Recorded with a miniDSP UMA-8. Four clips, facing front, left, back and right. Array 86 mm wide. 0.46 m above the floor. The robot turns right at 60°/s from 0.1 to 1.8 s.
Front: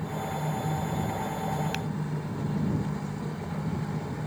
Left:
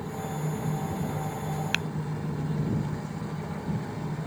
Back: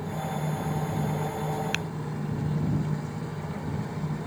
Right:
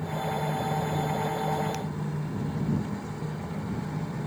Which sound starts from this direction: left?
Tapping, at 1.7 s.